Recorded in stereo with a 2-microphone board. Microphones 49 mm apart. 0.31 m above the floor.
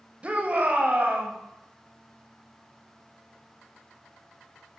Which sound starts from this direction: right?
A shout, at 0.2 s.